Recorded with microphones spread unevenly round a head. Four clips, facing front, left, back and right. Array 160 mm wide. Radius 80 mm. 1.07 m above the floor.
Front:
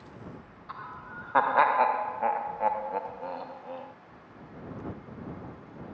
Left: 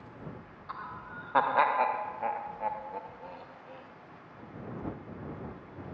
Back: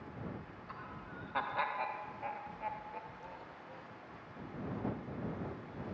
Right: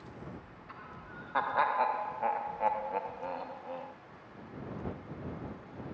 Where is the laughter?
50° left; by 3.9 s 30° right.